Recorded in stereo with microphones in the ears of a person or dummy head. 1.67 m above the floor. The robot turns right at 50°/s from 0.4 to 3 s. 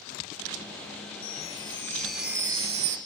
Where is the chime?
135° left, 1.1 m; by 3.0 s 140° right, 1.1 m.